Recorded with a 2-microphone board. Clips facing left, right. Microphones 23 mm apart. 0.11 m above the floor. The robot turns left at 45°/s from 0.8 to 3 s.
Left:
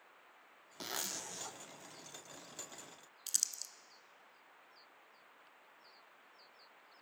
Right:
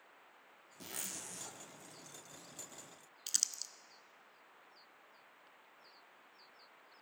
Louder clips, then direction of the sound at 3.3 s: Right 1 dB; 15° right (ahead or behind).